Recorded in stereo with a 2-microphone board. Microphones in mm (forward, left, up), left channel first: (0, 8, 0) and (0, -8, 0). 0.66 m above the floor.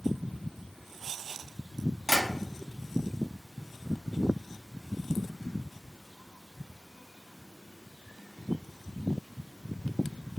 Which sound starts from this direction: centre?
Tapping, at 2.1 s.